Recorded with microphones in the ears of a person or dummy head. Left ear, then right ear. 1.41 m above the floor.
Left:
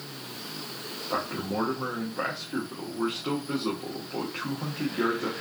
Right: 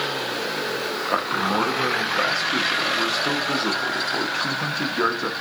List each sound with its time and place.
1.1 s a man speaking: 80° right, 0.9 m